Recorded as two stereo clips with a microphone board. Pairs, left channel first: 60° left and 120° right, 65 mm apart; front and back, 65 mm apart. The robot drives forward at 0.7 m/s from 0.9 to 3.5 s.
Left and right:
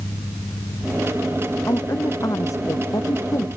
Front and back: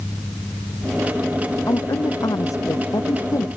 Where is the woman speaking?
25° left; by 3.5 s 30° left.